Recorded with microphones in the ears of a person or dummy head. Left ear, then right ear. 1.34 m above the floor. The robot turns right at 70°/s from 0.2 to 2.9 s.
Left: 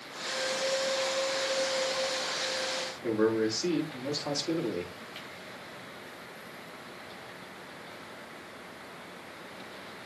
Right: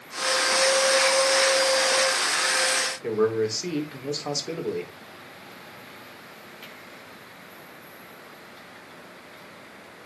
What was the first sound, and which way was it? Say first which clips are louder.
A man speaking: right 1 dB; 65° right (ahead or behind).